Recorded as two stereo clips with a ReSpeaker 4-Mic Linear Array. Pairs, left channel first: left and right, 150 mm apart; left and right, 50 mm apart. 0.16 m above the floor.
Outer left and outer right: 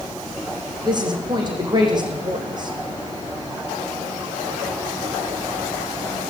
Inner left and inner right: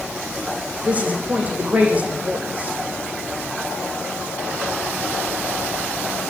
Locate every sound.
0.8 s a woman speaking: 30° right (ahead or behind), 9 m